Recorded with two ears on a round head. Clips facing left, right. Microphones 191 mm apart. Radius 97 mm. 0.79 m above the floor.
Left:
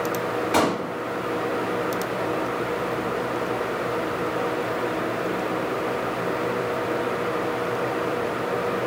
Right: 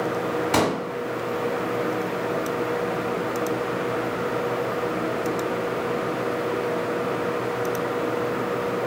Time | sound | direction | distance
0.5 | a pop | 65° right (ahead or behind) | 1.1 m